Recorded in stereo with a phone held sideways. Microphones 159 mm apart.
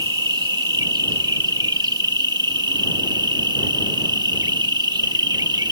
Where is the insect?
25° right (ahead or behind).